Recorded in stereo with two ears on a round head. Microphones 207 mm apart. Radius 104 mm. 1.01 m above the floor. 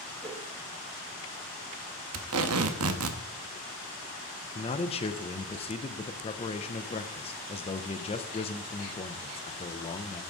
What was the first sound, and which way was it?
A whoosh, 25° right (ahead or behind).